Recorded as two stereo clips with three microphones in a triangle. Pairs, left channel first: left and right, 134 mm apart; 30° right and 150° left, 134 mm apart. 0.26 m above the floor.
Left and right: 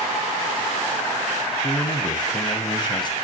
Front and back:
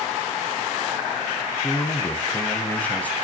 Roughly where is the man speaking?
Ahead left.